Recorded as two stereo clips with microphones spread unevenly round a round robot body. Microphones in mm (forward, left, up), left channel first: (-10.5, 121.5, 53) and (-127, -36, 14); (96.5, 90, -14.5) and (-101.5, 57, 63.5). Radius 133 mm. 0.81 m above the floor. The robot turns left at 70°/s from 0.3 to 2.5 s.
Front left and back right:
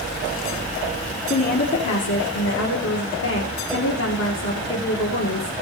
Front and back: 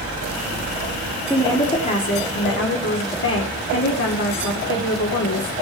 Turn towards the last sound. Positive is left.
turn(degrees=15)